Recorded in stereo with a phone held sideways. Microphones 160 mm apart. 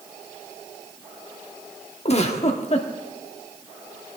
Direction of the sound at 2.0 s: 45° left (ahead or behind).